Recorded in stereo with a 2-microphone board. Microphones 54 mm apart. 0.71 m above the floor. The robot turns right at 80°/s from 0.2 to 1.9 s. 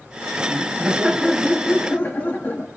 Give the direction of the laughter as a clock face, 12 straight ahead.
2 o'clock.